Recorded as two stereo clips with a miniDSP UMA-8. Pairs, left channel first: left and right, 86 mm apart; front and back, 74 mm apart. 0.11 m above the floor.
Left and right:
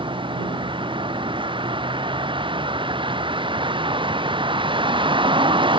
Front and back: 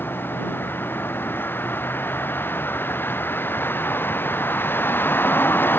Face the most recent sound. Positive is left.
turn(degrees=-65)